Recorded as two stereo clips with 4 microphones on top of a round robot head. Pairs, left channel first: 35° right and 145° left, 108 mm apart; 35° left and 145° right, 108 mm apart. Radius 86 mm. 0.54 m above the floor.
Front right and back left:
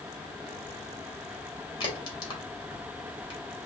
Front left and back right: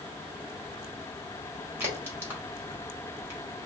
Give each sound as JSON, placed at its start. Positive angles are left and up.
{"t": 1.8, "sound": "a crack", "azimuth_deg": -80, "distance_m": 2.5}